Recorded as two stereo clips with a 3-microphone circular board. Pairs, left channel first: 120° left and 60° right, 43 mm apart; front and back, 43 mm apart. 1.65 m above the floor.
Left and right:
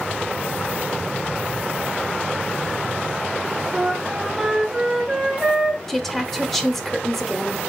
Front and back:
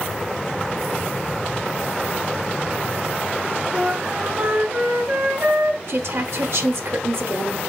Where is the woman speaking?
155° right, 0.7 m.